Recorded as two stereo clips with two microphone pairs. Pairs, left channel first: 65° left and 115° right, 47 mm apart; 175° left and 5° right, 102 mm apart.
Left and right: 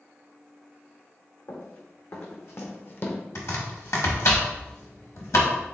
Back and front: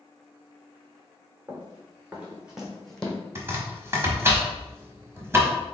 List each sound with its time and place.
1.5 s running footsteps: 65° left, 1.6 m; by 3.2 s 105° left, 0.8 m
3.4 s chopping: 60° left, 1.0 m